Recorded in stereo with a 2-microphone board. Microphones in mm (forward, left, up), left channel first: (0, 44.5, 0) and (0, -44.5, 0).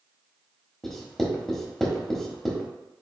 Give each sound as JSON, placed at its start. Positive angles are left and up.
{"t": 0.8, "sound": "writing", "side_deg": 5, "distance_m": 1.1}